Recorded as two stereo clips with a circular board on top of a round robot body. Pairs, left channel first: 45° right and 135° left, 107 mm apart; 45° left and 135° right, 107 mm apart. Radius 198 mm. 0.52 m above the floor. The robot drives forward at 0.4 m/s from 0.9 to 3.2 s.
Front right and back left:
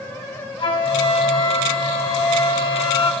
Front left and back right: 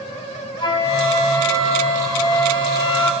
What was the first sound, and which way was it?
A flute, straight ahead.